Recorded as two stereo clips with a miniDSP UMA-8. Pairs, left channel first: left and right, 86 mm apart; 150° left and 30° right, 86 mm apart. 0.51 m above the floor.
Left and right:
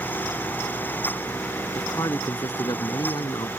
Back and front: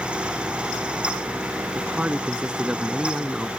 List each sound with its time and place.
1.8 s a man speaking: 45° left; by 3.5 s 60° left